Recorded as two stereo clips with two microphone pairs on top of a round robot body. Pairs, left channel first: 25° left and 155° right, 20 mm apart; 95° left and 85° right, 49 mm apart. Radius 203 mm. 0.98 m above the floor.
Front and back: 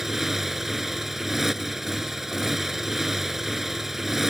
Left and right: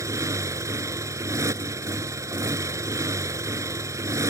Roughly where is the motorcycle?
Right.